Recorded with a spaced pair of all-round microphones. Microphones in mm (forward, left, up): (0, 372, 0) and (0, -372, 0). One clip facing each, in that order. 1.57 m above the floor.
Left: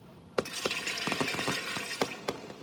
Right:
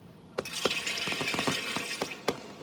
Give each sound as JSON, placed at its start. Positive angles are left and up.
{"t": 0.5, "sound": "a running tap", "side_deg": -65, "distance_m": 1.4}